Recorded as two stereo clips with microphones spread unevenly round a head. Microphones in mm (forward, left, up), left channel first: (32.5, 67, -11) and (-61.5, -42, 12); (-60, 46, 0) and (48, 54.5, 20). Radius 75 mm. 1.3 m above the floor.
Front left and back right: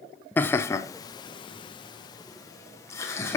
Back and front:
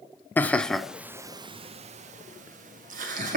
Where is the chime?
I don't hear a chime.